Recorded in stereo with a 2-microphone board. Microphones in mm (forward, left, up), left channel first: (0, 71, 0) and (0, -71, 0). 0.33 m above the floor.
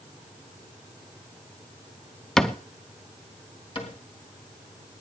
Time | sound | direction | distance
2.4 | a cupboard door | 5° left (ahead or behind) | 0.7 m
3.8 | a cupboard door | 40° left (ahead or behind) | 3 m